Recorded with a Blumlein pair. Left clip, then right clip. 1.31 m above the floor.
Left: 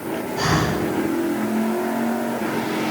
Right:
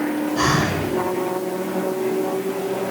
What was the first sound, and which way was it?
Breathing, 55° right.